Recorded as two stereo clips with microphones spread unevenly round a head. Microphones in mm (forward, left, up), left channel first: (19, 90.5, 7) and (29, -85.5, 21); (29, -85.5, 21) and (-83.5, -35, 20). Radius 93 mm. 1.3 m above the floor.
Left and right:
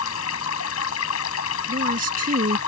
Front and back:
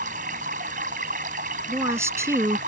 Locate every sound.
0.0 s running water: 105° left
1.7 s a woman speaking: 135° right